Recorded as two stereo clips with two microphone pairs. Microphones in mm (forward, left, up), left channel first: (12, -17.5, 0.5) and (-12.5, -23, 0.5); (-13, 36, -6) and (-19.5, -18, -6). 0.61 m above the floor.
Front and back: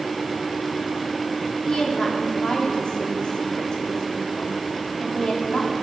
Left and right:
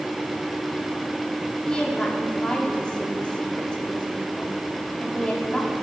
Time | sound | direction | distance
1.7 | a woman speaking | 15° left | 1.6 m